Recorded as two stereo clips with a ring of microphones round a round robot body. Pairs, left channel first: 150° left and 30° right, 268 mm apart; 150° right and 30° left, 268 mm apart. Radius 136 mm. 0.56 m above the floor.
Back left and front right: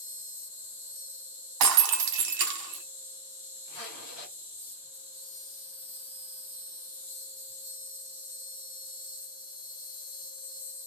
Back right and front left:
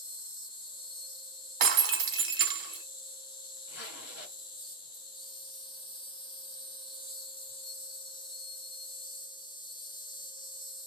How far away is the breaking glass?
About 0.9 m.